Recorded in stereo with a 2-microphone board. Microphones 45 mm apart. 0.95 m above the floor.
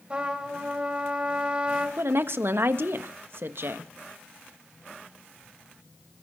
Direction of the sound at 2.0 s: 60° right (ahead or behind).